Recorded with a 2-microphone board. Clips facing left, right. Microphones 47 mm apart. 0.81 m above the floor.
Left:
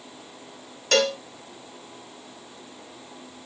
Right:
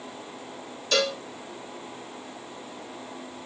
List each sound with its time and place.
0.9 s a cowbell: 65° left (ahead or behind), 1.7 m